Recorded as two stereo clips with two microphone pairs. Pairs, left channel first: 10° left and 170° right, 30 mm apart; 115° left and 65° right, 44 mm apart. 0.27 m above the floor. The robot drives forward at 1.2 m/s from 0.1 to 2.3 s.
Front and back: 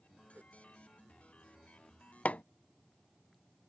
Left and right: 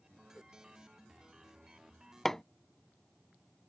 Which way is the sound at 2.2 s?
30° left.